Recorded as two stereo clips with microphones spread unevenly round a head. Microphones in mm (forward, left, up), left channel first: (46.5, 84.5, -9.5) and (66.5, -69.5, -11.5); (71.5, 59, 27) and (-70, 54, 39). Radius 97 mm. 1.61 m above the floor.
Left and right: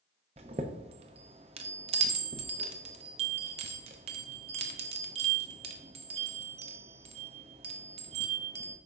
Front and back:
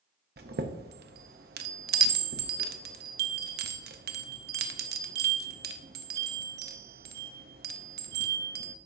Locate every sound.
0.4 s a chime: 145° right, 0.7 m